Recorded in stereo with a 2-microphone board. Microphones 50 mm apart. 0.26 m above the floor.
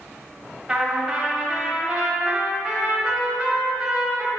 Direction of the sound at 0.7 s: 15° right (ahead or behind).